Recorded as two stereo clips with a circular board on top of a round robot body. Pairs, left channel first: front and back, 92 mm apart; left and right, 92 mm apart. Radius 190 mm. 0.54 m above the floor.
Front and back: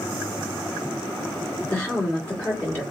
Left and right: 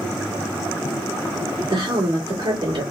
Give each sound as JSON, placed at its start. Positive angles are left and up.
{"t": 1.7, "sound": "a woman speaking", "azimuth_deg": -75, "distance_m": 2.0}